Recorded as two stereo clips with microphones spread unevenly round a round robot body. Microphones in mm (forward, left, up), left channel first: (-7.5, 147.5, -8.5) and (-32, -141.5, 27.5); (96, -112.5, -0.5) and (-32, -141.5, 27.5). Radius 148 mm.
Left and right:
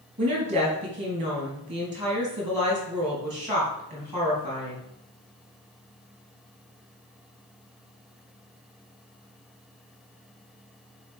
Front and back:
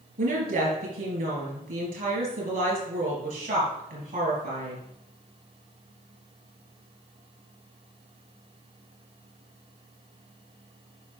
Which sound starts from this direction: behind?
A woman speaking, at 0.2 s.